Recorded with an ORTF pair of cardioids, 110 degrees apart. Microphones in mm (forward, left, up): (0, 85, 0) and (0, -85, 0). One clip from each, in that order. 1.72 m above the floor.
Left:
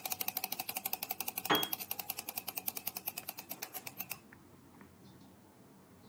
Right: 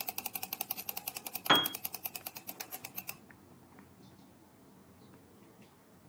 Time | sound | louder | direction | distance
1.5 | a piano | right 5 dB | 40° right | 1.2 m